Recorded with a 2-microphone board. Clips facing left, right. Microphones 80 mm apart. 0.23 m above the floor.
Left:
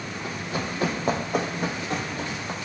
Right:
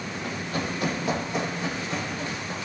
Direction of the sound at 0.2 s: 5° left (ahead or behind).